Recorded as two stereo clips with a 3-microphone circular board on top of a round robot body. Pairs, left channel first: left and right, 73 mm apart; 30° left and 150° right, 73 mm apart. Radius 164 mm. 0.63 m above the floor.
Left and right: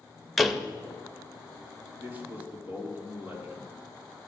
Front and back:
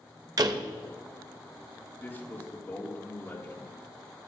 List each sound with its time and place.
0.4 s a door slam: straight behind, 0.8 m
2.0 s a man speaking: 30° right, 2.5 m